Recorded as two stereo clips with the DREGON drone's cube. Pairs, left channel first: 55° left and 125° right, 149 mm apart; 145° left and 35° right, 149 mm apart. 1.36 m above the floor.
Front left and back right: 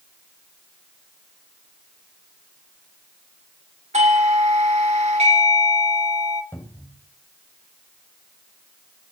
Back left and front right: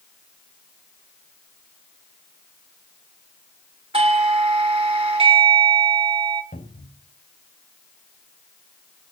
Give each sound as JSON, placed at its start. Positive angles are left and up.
{"t": 3.9, "sound": "a doorbell", "azimuth_deg": -85, "distance_m": 2.0}
{"t": 6.5, "sound": "a cupboard door", "azimuth_deg": 130, "distance_m": 3.5}